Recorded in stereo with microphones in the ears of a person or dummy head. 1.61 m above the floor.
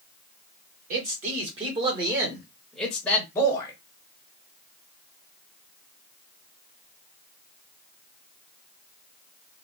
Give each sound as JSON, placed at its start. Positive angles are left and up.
{"t": 0.9, "sound": "a man speaking", "side_deg": -40, "distance_m": 1.6}